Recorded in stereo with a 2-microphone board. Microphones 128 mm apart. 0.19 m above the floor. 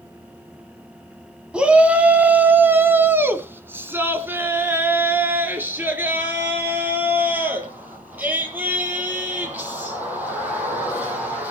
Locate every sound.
1.5 s a shout: 10° right (ahead or behind), 1.1 m; by 11.5 s 15° right (ahead or behind), 6 m